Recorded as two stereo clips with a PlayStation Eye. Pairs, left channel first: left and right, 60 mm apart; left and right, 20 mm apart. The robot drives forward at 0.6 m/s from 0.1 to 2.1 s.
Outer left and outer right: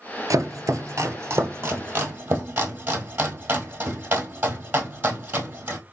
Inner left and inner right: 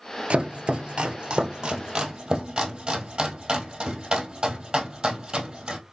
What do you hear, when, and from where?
0.3 s chopping: 65° right (ahead or behind), 0.9 m; by 5.8 s 35° right (ahead or behind), 1.5 m